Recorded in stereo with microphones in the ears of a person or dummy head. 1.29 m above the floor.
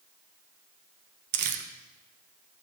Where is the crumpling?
50° right (ahead or behind), 1.1 m.